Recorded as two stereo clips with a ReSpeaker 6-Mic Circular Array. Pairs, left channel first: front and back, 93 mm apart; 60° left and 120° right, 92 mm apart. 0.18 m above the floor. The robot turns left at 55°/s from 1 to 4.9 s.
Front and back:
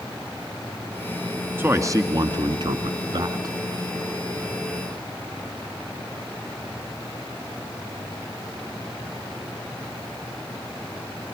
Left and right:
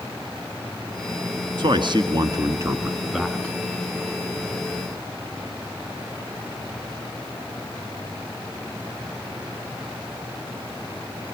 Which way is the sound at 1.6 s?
120° right.